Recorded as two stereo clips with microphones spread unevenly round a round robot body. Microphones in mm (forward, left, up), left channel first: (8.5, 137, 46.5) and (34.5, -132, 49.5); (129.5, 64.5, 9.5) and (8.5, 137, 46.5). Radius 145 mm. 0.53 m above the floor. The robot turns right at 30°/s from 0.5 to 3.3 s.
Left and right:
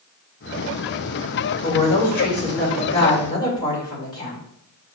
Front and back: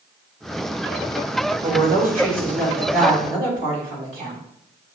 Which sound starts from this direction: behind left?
A woman speaking, at 1.6 s.